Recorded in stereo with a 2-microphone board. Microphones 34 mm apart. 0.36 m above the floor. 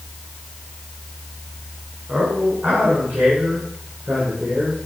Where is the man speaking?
50° right (ahead or behind), 3 m; by 4.8 s 45° right (ahead or behind), 6 m.